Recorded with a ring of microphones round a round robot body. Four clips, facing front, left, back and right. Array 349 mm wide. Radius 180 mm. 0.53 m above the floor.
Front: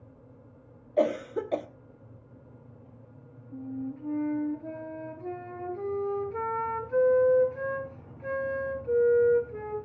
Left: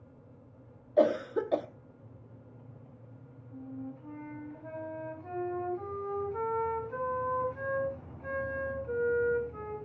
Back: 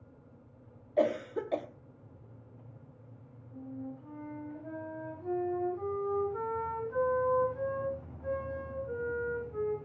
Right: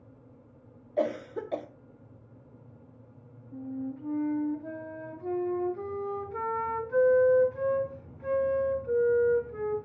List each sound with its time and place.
1.0 s a cough: 50° left, 1.2 m
3.5 s a flute: 35° right, 3.5 m